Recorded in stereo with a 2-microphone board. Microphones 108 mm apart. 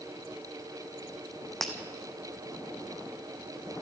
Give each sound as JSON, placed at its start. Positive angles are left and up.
{"t": 1.6, "sound": "breaking glass", "side_deg": 0, "distance_m": 2.0}